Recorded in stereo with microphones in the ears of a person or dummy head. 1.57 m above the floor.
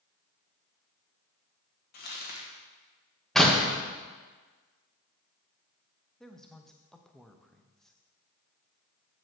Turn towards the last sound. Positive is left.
turn(degrees=0)  # may be behind; listen again after turning